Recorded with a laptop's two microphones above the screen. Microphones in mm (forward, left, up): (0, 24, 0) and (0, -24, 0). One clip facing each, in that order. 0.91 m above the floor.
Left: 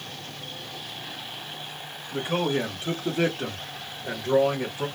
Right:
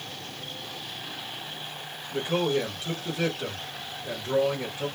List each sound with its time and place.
2.1 s a man speaking: 15° left (ahead or behind), 1.2 m; by 4.9 s 50° left (ahead or behind), 1.4 m